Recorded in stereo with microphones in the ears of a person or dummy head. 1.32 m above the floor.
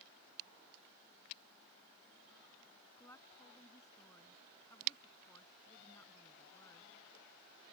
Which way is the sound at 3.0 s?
15° left (ahead or behind).